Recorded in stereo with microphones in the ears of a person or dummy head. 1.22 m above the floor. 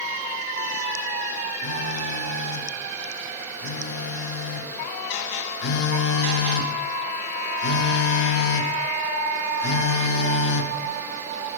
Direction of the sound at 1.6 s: 70° left (ahead or behind).